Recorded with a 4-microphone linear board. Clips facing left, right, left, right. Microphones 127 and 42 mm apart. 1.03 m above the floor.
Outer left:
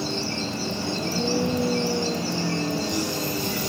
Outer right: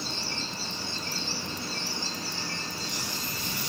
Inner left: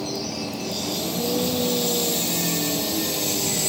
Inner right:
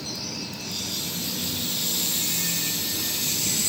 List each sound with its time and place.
0.0 s a vehicle: 85° left